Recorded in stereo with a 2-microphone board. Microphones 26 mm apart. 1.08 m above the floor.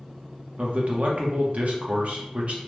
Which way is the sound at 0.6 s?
55° right (ahead or behind).